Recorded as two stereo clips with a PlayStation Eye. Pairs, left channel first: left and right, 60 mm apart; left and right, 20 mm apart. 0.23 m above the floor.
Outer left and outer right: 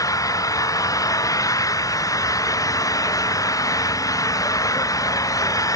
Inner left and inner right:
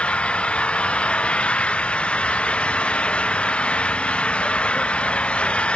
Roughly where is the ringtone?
No ringtone in this recording.